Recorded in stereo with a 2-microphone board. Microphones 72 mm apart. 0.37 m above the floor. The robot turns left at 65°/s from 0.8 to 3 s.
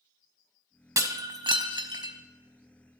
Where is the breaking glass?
45° right, 0.6 m; by 2.1 s 125° right, 0.6 m.